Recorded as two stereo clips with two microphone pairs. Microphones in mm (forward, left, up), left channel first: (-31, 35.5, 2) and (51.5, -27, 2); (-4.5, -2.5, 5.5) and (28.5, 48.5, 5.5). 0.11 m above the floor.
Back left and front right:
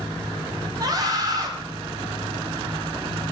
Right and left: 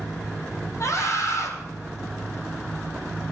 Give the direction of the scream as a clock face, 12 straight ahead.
3 o'clock.